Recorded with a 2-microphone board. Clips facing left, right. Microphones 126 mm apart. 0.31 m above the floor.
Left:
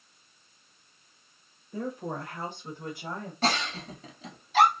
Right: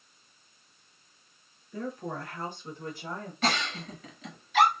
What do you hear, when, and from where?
1.7 s a woman speaking: 20° left (ahead or behind), 0.9 m
3.4 s a giggle: 40° left (ahead or behind), 1.4 m